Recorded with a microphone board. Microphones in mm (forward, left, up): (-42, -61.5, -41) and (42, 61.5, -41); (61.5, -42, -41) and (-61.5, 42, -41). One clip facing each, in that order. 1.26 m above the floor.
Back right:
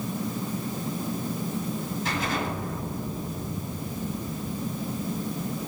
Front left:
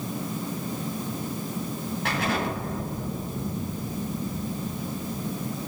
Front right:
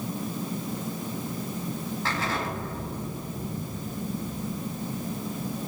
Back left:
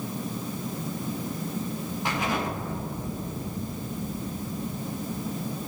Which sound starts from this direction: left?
An explosion, at 2.0 s.